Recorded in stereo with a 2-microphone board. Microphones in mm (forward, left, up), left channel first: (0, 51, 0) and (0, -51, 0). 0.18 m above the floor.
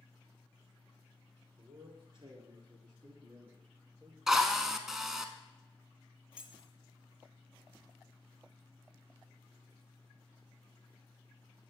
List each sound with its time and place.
1.6 s a man speaking: 55° right (ahead or behind), 2 m; by 4.2 s 35° right (ahead or behind), 3 m
4.3 s a drill: 5° right (ahead or behind), 0.6 m
6.3 s keys jangling: 10° right (ahead or behind), 1.1 m